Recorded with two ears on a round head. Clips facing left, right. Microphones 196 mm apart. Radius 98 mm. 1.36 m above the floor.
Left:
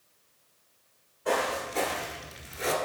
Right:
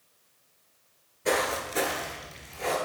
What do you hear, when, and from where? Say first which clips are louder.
1.2 s footsteps: right 1 dB; 35° right (ahead or behind), 1.7 m; by 2.7 s 30° left (ahead or behind), 1.5 m